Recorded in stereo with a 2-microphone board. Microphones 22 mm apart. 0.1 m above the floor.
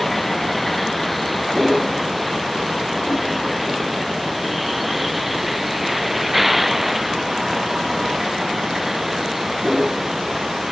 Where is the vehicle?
5° left (ahead or behind); by 10.7 s 15° right (ahead or behind).